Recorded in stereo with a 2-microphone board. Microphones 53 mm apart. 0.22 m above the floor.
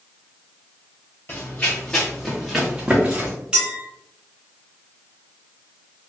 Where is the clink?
15° right (ahead or behind), 1.8 m.